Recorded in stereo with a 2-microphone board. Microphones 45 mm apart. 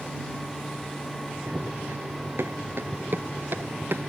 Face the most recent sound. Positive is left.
turn(degrees=-55)  # may be behind; listen again after turning